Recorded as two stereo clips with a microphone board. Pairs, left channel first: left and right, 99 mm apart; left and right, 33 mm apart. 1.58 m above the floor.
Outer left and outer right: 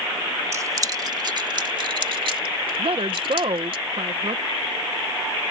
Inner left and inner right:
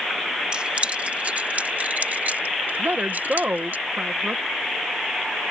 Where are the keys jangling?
30° right (ahead or behind); by 3.8 s 65° right (ahead or behind).